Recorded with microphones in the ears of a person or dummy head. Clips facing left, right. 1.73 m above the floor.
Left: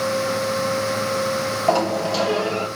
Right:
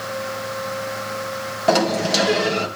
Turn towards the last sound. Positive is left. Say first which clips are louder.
# right 3 dB
turn(degrees=-30)  # may be behind; listen again after turning